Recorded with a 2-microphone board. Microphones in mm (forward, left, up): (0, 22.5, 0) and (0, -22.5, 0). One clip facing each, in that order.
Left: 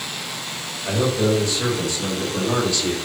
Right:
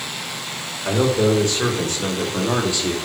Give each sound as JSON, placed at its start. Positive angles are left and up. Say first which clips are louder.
{"t": 0.8, "sound": "a man speaking", "louder": "right 2 dB", "side_deg": -65, "distance_m": 2.5}